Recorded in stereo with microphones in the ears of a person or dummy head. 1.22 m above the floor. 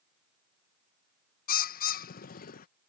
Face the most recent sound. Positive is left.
turn(degrees=40)  # may be behind; listen again after turning